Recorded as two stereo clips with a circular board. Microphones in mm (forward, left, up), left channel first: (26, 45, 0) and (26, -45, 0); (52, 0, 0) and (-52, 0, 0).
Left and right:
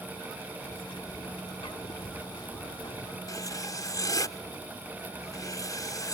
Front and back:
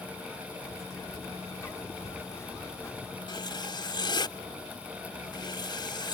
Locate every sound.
0.6 s a bird: 65° left
3.3 s writing: 45° left